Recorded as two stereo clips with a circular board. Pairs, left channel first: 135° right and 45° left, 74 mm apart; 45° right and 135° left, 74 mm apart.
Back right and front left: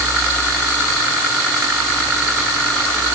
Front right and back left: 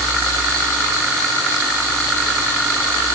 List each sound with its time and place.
Only background noise.